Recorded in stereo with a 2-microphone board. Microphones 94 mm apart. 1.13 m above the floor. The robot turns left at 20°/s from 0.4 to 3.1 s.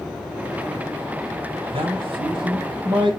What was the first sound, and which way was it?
A man speaking, 85° right.